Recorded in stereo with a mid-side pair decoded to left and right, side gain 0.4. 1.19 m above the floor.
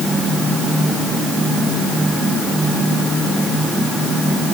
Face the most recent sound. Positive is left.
No sound to turn to.